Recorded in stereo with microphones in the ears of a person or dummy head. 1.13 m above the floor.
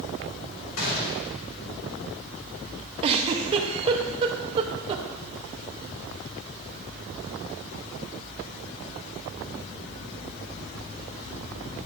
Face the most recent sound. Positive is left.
turn(degrees=-30)  # may be behind; listen again after turning